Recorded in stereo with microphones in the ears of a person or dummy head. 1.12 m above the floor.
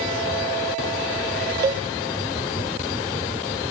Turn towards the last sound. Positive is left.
turn(degrees=-25)  # may be behind; listen again after turning